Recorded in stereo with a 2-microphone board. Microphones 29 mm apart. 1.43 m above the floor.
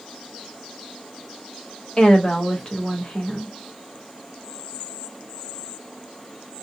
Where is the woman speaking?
35° left (ahead or behind), 1.8 m.